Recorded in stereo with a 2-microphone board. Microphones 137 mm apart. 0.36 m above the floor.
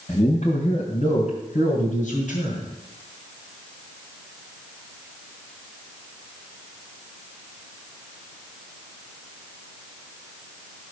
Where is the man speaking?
50° left (ahead or behind), 2.5 m; by 2.7 s 65° left (ahead or behind), 4 m.